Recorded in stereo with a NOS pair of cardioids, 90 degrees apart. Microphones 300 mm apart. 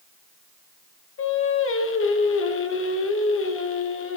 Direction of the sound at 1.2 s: 45° left.